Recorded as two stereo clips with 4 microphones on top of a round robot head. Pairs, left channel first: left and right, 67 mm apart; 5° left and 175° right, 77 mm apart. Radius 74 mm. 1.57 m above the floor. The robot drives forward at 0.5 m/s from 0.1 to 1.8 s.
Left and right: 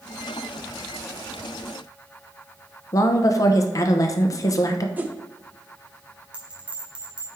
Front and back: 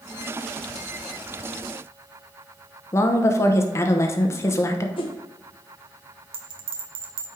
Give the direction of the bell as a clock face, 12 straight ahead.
5 o'clock.